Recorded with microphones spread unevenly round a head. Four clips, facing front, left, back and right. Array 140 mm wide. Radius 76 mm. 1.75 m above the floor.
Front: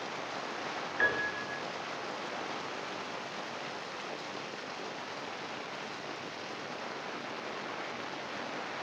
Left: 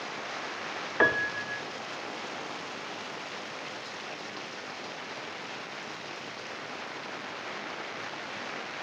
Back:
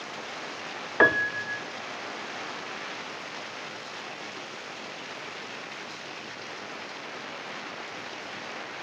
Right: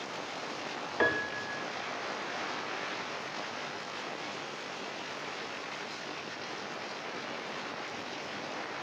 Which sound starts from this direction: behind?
A piano, at 1.0 s.